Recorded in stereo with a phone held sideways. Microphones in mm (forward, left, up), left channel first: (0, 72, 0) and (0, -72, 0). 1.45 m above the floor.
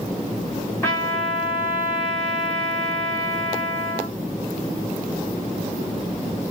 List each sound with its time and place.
0.8 s a trumpet: 15° left (ahead or behind), 1.5 m